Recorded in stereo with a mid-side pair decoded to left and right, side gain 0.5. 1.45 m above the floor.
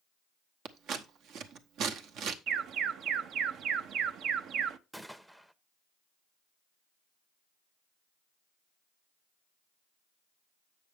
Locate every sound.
0.7 s scissors: 70° right, 0.9 m
2.5 s an alarm: 65° right, 0.7 m
4.9 s a gunshot: 5° right, 0.7 m